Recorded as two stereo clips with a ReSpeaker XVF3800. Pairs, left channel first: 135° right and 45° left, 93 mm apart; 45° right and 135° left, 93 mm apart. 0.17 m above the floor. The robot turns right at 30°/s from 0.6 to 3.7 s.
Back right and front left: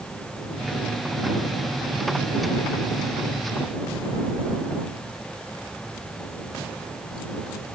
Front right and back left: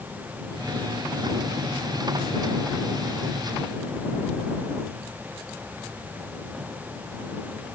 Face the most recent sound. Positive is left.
No sound to turn to.